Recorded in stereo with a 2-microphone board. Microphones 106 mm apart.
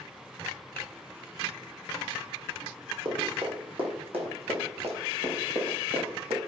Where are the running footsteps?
50° right (ahead or behind), 6 m; by 6.4 s 70° right (ahead or behind), 6.5 m.